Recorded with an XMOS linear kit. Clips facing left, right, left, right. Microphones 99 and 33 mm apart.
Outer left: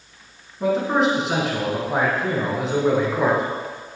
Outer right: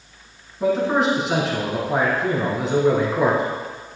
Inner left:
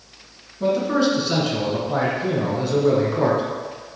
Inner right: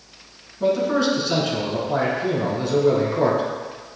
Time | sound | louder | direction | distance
0.6 | a man speaking | even, even | centre (ahead or behind) | 1.8 m